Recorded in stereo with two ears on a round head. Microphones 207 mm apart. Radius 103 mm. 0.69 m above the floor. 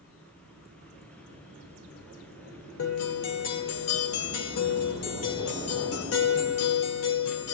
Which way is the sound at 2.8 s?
70° left (ahead or behind).